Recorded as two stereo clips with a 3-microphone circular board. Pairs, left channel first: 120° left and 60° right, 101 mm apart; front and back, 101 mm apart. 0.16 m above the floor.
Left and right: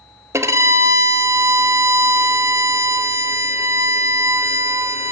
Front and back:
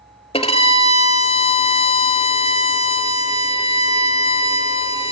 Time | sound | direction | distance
0.3 | a violin | straight ahead | 0.7 m